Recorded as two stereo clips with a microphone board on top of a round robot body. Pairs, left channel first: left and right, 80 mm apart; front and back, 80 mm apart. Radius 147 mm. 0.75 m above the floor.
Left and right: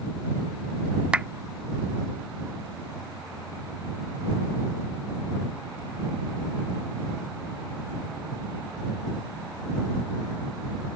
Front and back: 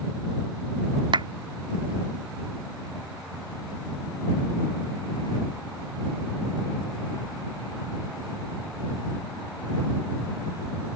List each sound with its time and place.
1.1 s a clap: 170° right